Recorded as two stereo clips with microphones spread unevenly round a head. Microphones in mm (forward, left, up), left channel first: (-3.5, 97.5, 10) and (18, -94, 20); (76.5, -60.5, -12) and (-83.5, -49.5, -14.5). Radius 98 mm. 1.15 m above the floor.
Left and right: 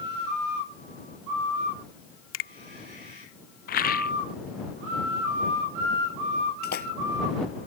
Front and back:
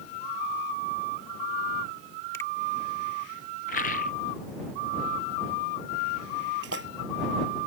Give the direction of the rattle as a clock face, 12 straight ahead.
10 o'clock.